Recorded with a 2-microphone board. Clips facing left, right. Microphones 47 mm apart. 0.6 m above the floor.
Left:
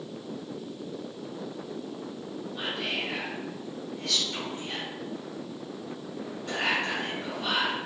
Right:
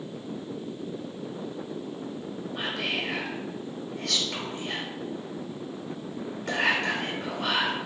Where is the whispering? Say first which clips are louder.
Right 2 dB; 65° right (ahead or behind), 1.6 m.